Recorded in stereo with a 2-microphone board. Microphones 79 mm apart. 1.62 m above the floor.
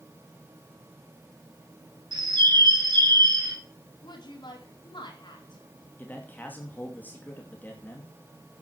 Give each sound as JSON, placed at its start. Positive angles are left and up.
{"t": 2.1, "sound": "a bird", "side_deg": -65, "distance_m": 2.5}
{"t": 4.0, "sound": "a woman speaking", "side_deg": 70, "distance_m": 4.0}
{"t": 6.0, "sound": "a man speaking", "side_deg": 20, "distance_m": 2.5}